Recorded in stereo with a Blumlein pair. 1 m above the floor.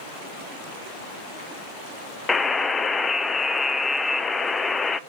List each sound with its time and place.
2.3 s a buzzer: 15° left, 0.6 m